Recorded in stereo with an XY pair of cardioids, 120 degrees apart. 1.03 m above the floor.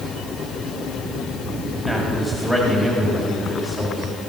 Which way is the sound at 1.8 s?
10° right.